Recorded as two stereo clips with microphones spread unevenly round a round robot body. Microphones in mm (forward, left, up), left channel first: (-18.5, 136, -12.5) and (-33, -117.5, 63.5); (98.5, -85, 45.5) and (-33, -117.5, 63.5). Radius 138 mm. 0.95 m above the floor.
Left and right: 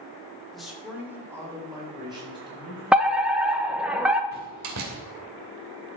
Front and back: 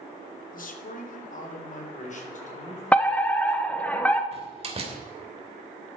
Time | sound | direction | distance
0.5 | a man speaking | straight ahead | 2 m
2.9 | a fire alarm | 40° left | 1.1 m
4.3 | a door slam | 120° right | 2.5 m